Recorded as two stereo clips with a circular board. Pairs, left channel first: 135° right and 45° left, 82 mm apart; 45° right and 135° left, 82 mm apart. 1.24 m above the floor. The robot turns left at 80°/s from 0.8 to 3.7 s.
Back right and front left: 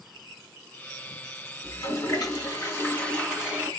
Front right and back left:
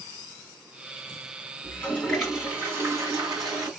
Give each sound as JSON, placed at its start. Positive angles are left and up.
{"t": 1.6, "sound": "a toilet flushing", "azimuth_deg": -85, "distance_m": 1.7}